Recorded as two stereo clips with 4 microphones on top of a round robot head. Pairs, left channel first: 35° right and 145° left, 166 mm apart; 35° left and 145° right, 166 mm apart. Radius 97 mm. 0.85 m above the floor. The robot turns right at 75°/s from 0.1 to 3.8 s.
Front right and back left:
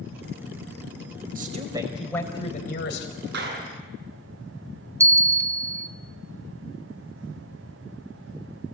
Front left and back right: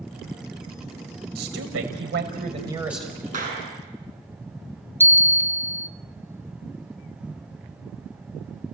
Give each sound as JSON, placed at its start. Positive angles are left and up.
{"t": 1.4, "sound": "a man speaking", "azimuth_deg": -175, "distance_m": 5.0}
{"t": 3.3, "sound": "a clap", "azimuth_deg": 160, "distance_m": 8.5}
{"t": 5.0, "sound": "a bell", "azimuth_deg": 95, "distance_m": 0.8}